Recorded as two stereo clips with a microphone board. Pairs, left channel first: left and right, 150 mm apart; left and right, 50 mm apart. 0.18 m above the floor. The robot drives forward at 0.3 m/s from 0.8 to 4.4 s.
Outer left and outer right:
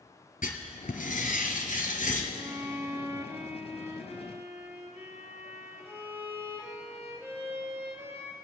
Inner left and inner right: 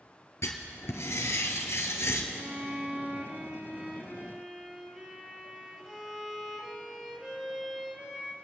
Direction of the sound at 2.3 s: 25° right (ahead or behind).